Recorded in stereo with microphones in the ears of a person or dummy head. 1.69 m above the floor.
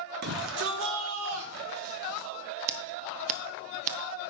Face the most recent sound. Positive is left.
turn(degrees=-40)  # may be behind; listen again after turning